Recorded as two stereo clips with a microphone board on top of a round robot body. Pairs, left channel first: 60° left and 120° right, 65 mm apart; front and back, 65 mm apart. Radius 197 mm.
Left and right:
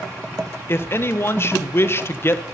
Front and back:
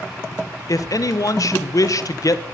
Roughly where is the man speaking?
Ahead.